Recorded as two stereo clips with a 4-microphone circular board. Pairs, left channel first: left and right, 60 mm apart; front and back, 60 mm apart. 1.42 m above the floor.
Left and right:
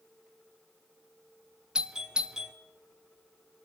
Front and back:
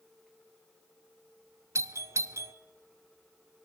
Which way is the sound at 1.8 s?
160° right.